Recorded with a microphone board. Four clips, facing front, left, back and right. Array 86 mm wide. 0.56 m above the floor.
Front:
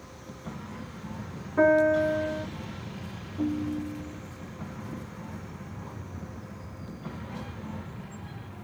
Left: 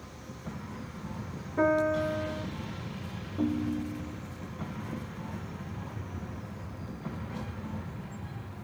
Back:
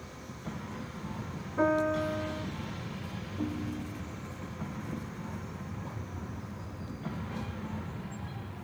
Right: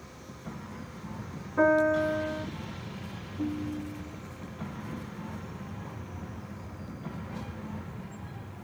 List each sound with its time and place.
1.6 s a piano: 20° right, 1.4 m
3.4 s a ringtone: 85° left, 0.7 m